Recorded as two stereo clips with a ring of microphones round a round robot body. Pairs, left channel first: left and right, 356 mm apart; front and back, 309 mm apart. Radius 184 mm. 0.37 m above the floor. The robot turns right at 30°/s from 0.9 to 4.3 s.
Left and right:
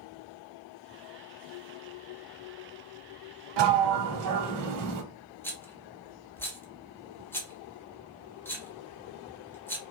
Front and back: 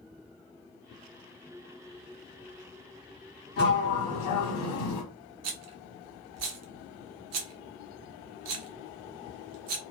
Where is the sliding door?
65° right, 0.6 m; by 5.0 s 45° right, 0.6 m.